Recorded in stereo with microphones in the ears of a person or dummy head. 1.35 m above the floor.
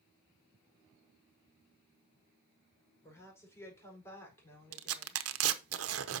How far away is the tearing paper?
About 0.8 m.